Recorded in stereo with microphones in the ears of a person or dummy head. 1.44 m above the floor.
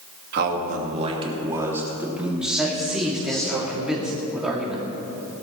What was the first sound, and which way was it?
A man speaking, 55° right (ahead or behind).